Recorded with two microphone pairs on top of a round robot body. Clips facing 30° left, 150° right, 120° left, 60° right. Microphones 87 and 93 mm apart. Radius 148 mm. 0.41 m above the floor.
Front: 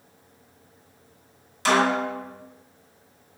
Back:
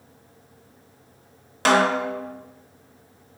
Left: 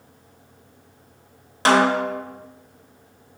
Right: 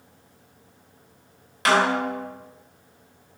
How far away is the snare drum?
About 0.8 m.